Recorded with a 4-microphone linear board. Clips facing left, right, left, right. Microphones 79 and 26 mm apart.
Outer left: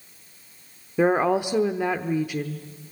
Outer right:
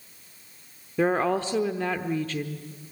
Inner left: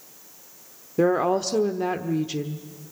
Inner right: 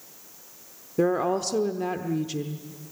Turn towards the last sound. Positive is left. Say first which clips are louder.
# outer left 3 dB, inner left 3 dB
turn(degrees=15)  # may be behind; listen again after turning